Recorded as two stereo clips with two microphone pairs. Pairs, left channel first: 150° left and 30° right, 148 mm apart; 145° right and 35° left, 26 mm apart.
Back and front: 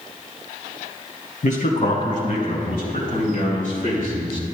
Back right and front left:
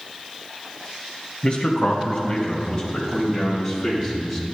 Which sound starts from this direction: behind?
A man speaking, at 1.4 s.